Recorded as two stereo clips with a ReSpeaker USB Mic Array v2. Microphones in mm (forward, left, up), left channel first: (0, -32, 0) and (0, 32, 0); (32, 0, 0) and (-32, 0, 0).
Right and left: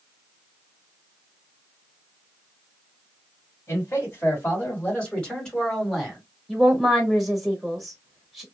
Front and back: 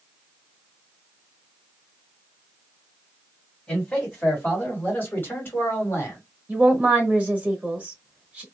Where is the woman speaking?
Straight behind, 1.1 m.